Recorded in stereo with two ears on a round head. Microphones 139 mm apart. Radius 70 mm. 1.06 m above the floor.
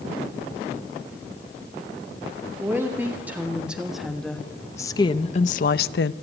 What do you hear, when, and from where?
2.6 s a woman speaking: 15° right (ahead or behind), 2 m; by 6.1 s 80° left, 0.8 m